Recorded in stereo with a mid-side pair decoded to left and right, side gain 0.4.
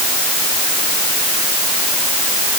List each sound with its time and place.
Only background noise.